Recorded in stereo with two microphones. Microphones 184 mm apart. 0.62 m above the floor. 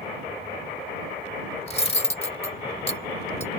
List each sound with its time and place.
1.7 s cutlery clinking: 35° left (ahead or behind)